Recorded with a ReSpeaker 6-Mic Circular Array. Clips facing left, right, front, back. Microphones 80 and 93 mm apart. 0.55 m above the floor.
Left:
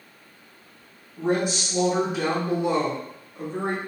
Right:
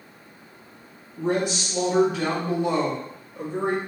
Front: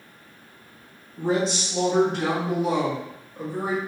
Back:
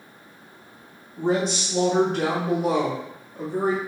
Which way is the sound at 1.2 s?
140° left.